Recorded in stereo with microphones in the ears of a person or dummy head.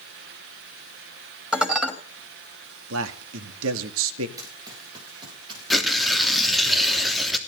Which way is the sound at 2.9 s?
75° right (ahead or behind).